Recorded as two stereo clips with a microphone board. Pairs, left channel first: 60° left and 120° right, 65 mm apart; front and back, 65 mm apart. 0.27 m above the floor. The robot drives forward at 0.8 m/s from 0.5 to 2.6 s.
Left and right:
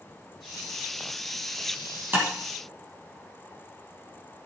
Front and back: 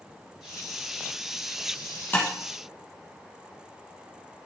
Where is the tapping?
60° right, 4 m.